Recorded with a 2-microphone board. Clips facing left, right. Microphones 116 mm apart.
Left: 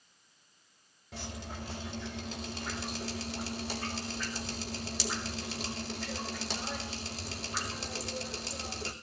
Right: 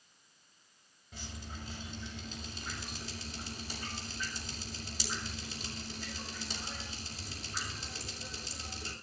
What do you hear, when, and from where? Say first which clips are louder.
1.1 s dripping: left 5 dB; 80° left, 5.5 m